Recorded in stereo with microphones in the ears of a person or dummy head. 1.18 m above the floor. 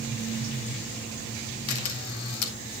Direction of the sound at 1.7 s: 85° left.